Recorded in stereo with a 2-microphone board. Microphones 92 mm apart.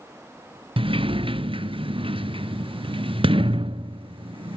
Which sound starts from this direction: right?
A sliding door, at 0.8 s.